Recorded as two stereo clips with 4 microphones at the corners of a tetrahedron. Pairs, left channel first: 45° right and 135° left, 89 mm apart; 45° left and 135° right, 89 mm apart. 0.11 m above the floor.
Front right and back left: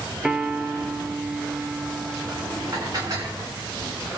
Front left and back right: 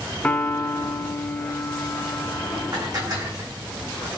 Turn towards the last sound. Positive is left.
turn(degrees=180)